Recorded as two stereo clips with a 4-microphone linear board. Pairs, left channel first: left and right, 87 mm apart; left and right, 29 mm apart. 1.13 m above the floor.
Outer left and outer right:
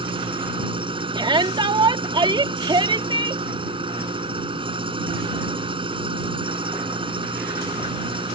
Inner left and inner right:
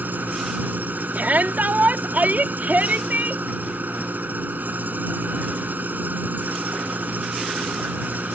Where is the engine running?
85° right.